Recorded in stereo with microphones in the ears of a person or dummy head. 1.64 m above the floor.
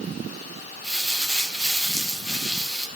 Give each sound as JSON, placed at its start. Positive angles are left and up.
{"t": 0.8, "sound": "crumpling", "side_deg": 0, "distance_m": 1.8}